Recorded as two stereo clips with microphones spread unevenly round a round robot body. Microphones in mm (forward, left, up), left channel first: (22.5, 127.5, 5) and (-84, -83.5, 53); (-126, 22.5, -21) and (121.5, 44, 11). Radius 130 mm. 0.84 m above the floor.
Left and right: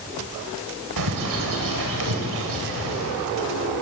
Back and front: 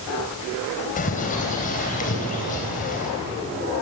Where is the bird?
110° right, 3 m.